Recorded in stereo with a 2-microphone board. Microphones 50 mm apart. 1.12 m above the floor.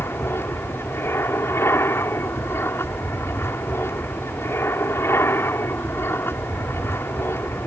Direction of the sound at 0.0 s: 55° left (ahead or behind).